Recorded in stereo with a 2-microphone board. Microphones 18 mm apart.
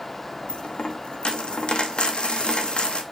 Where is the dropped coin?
60° left (ahead or behind), 1.0 m.